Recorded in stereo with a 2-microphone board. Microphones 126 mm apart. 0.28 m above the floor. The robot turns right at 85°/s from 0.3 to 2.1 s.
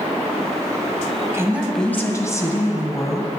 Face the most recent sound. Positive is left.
turn(degrees=30)